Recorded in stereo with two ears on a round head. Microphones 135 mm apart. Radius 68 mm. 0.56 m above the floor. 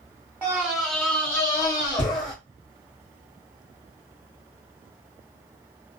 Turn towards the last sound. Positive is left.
turn(degrees=30)  # may be behind; listen again after turning